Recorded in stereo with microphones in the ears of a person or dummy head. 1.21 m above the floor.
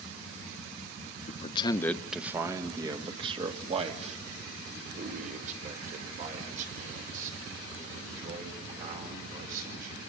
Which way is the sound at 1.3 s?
45° left (ahead or behind).